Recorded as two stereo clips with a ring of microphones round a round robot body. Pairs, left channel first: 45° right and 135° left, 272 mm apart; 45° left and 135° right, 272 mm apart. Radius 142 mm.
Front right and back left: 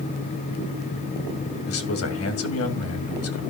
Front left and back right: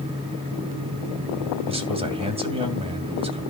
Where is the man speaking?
70° right, 2.5 m.